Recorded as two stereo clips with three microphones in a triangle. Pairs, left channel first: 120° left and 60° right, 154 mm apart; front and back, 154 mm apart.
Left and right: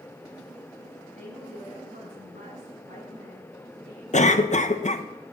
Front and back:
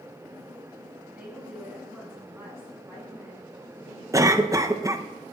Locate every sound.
1.1 s a woman speaking: 100° right, 7.5 m; by 4.0 s 105° right, 8.5 m
4.1 s a cough: 120° left, 0.9 m